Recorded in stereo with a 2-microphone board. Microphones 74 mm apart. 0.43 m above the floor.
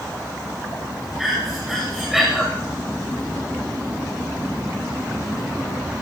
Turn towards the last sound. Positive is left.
turn(degrees=0)  # may be behind; listen again after turning